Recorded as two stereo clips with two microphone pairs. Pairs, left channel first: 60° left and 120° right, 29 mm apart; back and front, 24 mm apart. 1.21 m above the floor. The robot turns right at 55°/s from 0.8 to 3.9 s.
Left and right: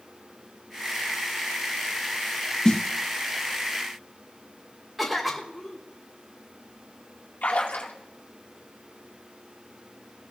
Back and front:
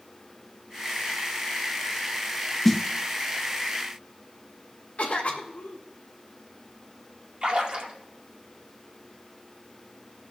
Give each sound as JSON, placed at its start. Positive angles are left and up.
{"t": 2.6, "sound": "a snare drum", "azimuth_deg": 100, "distance_m": 0.6}
{"t": 5.0, "sound": "a cough", "azimuth_deg": 155, "distance_m": 1.5}
{"t": 7.4, "sound": "a splash", "azimuth_deg": 40, "distance_m": 2.0}